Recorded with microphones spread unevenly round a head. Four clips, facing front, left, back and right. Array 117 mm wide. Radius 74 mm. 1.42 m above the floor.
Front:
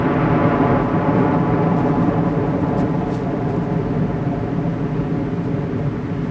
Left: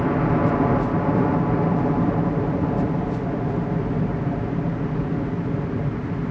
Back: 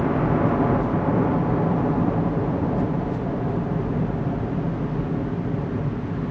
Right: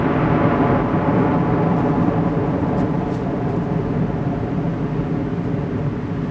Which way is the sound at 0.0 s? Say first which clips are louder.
Right 3 dB, front 5 dB; 25° right.